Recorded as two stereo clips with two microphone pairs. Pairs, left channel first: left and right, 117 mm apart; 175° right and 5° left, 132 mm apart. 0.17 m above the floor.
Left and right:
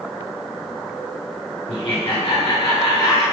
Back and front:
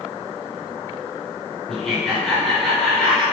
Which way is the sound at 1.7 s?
95° left.